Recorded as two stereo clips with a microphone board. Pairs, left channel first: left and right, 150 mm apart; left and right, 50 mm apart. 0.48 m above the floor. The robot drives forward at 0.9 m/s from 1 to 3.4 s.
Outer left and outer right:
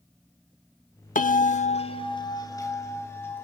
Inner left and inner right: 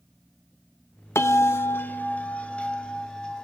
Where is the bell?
55° left (ahead or behind), 0.6 m; by 3.4 s 15° left (ahead or behind), 2 m.